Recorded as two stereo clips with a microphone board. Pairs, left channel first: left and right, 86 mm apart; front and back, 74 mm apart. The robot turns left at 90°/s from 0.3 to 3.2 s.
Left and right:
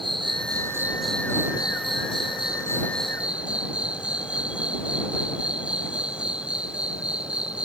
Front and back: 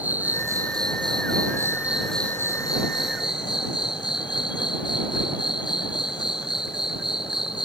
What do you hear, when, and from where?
0.0 s an insect: 110° right; by 7.7 s 10° right